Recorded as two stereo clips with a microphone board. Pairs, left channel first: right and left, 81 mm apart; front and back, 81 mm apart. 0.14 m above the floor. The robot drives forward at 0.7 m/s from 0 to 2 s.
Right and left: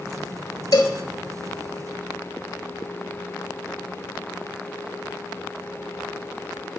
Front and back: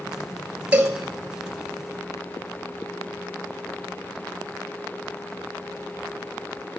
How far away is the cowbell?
About 0.9 m.